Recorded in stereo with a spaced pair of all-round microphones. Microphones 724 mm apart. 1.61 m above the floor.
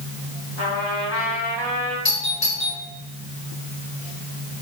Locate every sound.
0.6 s a trumpet: 35° left (ahead or behind), 4.5 m
2.0 s a doorbell: 65° left (ahead or behind), 5 m